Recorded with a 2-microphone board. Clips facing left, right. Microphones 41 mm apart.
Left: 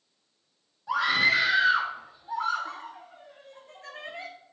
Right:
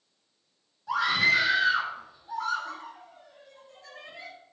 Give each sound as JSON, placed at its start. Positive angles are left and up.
{"t": 0.9, "sound": "a scream", "side_deg": 10, "distance_m": 3.5}